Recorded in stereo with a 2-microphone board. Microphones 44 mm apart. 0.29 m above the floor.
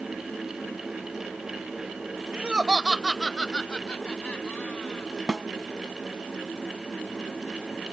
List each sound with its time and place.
2.3 s laughter: 30° right (ahead or behind); by 5.1 s 40° left (ahead or behind)
5.3 s a snare drum: 10° right (ahead or behind)